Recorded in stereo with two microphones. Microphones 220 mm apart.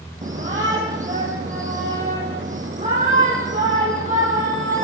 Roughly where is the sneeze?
No sneeze in this recording.